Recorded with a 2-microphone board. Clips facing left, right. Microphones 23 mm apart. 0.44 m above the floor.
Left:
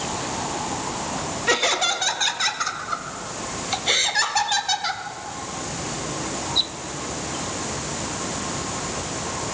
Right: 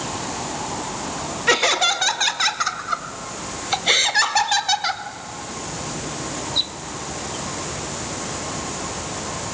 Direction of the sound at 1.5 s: 15° right (ahead or behind).